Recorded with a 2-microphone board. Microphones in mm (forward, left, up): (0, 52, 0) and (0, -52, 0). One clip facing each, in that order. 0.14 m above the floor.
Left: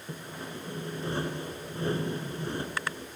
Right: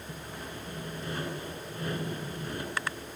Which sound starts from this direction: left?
Sawing, at 0.1 s.